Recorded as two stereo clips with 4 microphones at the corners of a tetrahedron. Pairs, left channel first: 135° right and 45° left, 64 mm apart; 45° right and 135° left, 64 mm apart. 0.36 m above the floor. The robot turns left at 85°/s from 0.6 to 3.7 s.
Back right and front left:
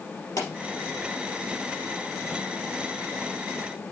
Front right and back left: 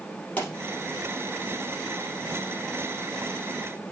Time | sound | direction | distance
0.4 | a pop | 110° right | 3.5 m